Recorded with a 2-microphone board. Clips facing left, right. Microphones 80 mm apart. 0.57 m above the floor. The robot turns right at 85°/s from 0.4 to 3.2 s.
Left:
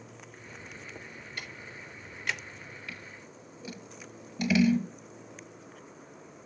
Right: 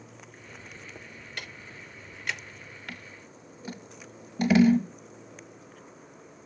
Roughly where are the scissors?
Right.